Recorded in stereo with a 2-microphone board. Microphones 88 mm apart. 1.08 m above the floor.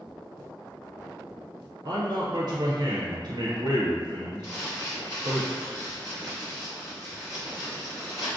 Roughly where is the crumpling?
Left.